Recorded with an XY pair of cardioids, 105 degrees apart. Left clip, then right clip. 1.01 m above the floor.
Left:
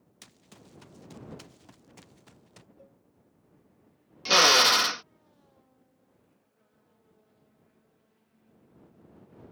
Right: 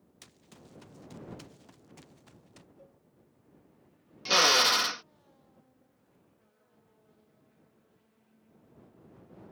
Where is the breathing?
I don't hear breathing.